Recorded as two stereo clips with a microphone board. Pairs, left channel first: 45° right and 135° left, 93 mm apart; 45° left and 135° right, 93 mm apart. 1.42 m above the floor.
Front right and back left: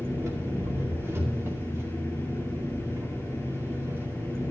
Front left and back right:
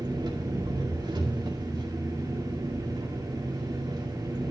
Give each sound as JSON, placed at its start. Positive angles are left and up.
{"t": 0.0, "sound": "an engine running", "azimuth_deg": -165, "distance_m": 2.5}